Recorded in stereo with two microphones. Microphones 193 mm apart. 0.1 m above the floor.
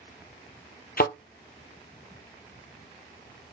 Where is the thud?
55° left (ahead or behind), 0.8 m.